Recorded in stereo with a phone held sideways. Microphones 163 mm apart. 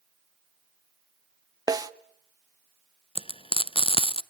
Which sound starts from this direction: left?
Frying, at 3.1 s.